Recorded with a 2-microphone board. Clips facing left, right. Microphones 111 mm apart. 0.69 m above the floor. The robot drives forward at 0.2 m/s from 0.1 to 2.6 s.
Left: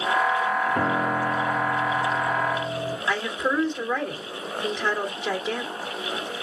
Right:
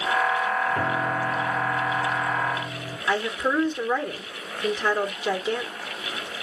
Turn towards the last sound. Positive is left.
turn(degrees=-5)  # may be behind; listen again after turning